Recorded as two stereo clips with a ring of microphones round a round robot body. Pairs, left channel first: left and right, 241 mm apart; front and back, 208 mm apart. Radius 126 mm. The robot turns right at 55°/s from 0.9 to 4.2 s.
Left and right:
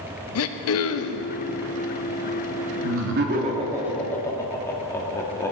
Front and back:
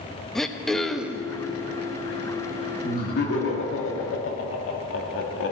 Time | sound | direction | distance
0.3 | throat clearing | 90° left | 0.7 m
2.8 | laughter | 65° right | 1.6 m